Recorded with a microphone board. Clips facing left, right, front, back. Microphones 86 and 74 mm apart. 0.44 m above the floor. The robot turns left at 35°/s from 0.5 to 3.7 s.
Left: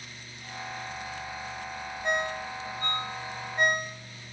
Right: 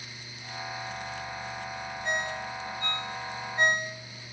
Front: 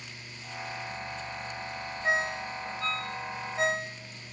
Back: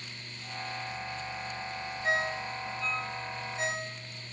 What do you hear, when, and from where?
2.0 s a ringtone: 70° left, 1.4 m; by 4.0 s 10° left, 1.4 m